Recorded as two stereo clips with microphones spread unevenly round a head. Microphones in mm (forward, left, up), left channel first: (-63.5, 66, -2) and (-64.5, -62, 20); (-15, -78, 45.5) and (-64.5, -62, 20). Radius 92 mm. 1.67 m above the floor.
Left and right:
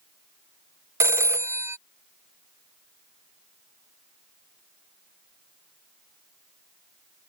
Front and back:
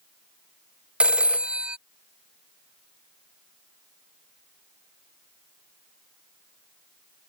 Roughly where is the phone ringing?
Right.